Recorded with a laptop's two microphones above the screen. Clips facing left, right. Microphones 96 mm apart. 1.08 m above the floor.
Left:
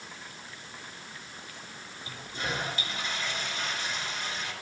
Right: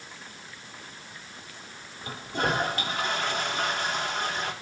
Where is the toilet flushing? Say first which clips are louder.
Right 8 dB; 60° right (ahead or behind), 3.5 m.